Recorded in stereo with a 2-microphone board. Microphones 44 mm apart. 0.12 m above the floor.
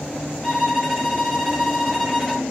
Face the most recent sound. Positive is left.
turn(degrees=-10)  # may be behind; listen again after turning